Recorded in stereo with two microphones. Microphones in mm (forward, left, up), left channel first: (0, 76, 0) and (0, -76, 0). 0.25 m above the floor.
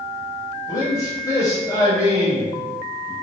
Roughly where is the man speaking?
Left.